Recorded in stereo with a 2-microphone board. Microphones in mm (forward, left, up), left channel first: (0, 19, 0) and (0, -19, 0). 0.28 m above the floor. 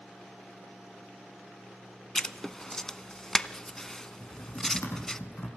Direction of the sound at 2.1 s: 10° left (ahead or behind).